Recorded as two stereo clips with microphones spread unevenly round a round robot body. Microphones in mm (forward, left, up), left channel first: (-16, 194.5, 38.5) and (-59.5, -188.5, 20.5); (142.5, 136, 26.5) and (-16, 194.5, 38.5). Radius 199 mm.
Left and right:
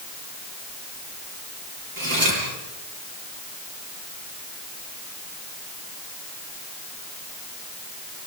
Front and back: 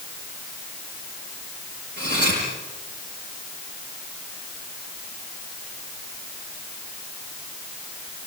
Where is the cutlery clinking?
135° right, 9.5 m.